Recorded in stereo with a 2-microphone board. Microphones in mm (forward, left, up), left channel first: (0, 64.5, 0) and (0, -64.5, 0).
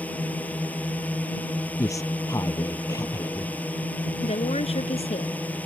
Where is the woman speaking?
55° left (ahead or behind).